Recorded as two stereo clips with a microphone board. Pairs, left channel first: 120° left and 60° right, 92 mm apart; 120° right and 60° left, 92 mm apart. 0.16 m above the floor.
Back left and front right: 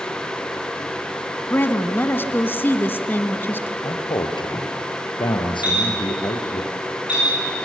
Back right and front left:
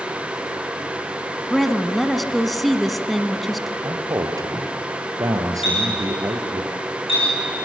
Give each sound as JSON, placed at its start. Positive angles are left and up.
{"t": 1.5, "sound": "a woman speaking", "azimuth_deg": 150, "distance_m": 1.1}
{"t": 3.8, "sound": "a man speaking", "azimuth_deg": 105, "distance_m": 3.0}
{"t": 5.6, "sound": "a clink", "azimuth_deg": -135, "distance_m": 10.0}